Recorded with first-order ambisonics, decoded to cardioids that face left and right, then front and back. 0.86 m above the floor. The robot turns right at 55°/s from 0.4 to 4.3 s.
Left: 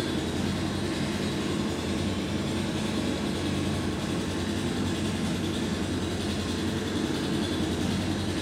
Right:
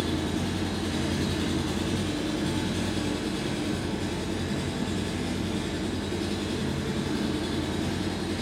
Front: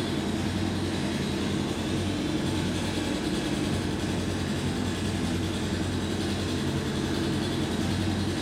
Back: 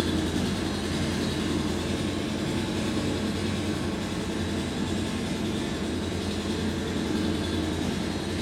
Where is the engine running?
175° right, 3.5 m; by 8.4 s 40° left, 3.5 m.